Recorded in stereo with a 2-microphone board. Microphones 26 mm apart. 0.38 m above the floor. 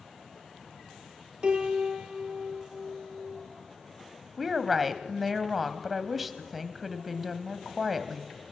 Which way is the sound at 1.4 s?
35° right (ahead or behind).